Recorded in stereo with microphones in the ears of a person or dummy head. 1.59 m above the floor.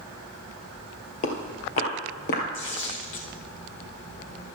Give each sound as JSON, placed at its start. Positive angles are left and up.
{"t": 1.2, "sound": "footsteps", "side_deg": 40, "distance_m": 2.0}
{"t": 2.5, "sound": "tearing paper", "side_deg": 35, "distance_m": 1.5}